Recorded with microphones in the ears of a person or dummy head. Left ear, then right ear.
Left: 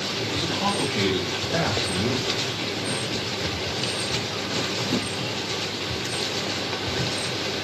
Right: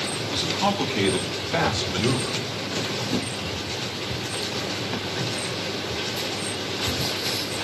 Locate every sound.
0.2 s a man speaking: 10° left (ahead or behind), 3.5 m; by 2.4 s 60° right (ahead or behind), 2.5 m